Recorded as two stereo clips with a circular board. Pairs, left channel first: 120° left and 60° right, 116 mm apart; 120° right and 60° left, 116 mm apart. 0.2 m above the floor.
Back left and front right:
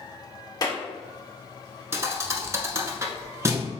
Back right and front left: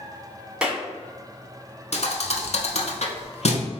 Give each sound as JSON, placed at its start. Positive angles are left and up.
{"t": 0.6, "sound": "a clap", "azimuth_deg": 135, "distance_m": 1.0}
{"t": 1.9, "sound": "a thud", "azimuth_deg": -125, "distance_m": 0.7}